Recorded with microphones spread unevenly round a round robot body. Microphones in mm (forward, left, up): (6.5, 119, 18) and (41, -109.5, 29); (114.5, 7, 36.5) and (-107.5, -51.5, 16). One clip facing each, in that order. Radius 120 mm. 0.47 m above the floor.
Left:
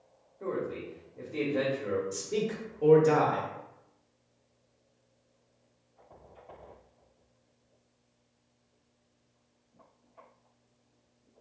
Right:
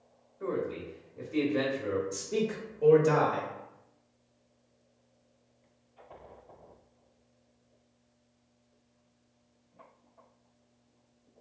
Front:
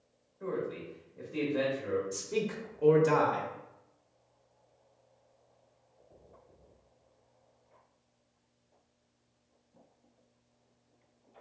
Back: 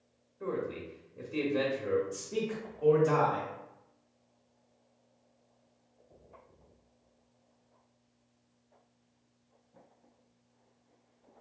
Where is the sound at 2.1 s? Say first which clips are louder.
Right 1 dB, front 1 dB; 35° left, 0.9 m.